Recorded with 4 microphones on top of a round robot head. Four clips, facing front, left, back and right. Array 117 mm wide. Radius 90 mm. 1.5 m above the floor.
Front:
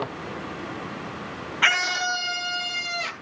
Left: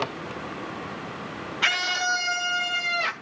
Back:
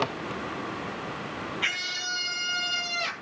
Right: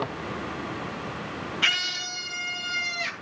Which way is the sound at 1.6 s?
20° left.